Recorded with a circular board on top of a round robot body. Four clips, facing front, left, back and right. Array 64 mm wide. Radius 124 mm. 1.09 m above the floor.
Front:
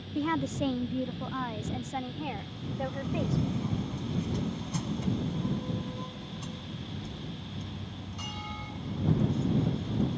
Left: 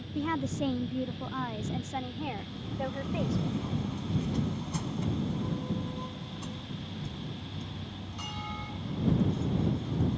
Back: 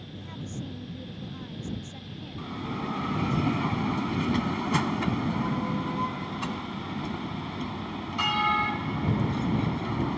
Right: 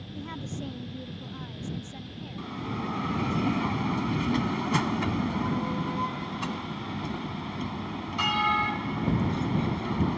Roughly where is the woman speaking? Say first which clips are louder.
Left 7 dB, front 11 dB; ahead left.